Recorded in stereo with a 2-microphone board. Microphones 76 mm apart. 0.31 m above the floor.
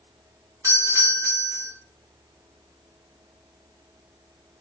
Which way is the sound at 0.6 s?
40° right (ahead or behind).